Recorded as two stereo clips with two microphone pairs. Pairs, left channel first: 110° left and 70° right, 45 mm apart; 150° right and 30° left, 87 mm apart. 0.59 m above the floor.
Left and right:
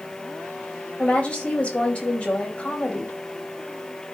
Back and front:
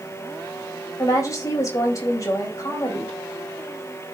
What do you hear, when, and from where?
1.0 s a woman speaking: 160° left, 4 m